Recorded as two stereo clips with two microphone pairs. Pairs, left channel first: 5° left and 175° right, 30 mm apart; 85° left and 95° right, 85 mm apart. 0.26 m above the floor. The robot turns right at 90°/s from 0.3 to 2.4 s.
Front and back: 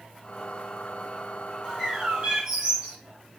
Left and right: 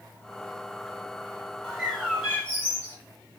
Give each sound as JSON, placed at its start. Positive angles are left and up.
{"t": 1.6, "sound": "a bird", "azimuth_deg": 145, "distance_m": 1.3}